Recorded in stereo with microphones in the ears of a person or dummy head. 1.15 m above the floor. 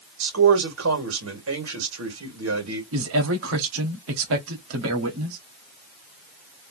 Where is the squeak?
No squeak in this recording.